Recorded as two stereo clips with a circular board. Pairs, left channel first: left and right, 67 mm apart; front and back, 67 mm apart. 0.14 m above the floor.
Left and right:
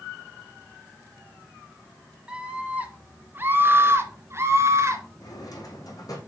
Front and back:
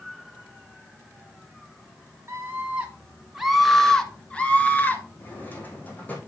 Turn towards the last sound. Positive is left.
turn(degrees=65)